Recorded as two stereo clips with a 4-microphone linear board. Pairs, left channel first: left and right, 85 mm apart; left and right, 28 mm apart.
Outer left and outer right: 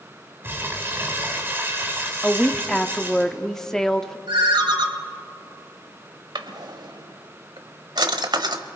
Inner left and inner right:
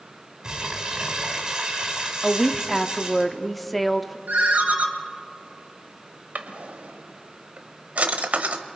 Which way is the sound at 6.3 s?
65° right (ahead or behind).